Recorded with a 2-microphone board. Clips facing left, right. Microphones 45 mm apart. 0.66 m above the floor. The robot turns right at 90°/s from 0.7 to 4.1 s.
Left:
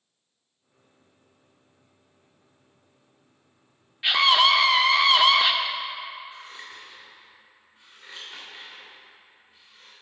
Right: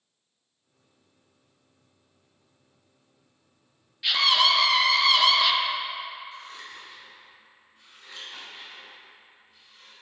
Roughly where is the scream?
Left.